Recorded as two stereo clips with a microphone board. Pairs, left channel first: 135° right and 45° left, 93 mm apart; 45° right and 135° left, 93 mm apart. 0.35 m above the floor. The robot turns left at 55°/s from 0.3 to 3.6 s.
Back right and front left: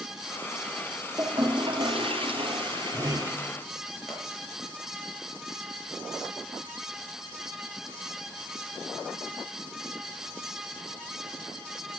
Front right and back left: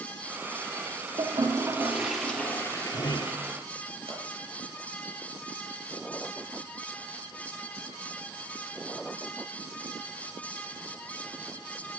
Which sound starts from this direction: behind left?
A pop, at 4.1 s.